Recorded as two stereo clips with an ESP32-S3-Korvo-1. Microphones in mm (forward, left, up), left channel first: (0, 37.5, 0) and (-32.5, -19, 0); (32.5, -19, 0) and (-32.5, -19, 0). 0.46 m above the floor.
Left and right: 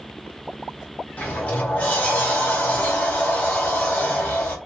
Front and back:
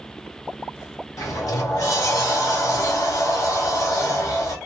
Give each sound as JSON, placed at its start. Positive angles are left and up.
{"t": 1.2, "sound": "a sliding door", "azimuth_deg": -5, "distance_m": 1.0}